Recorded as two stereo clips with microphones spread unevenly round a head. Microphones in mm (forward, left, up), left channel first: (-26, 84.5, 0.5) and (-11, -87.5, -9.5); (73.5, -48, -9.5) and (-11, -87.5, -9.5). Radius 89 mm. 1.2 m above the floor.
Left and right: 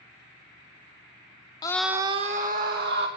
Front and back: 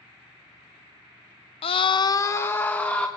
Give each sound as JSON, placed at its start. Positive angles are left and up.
{"t": 1.6, "sound": "a scream", "azimuth_deg": 25, "distance_m": 0.7}